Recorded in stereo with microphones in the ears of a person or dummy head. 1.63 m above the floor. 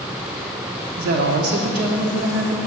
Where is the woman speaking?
60° right (ahead or behind), 0.8 m.